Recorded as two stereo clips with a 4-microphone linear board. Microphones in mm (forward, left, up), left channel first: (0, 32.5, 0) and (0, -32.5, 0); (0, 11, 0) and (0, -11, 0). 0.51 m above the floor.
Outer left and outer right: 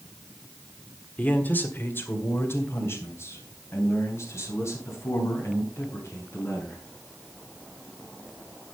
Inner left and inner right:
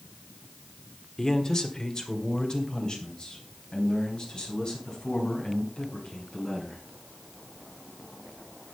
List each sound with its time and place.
1.2 s a man speaking: 25° left (ahead or behind), 1.4 m; by 6.8 s 50° left (ahead or behind), 6 m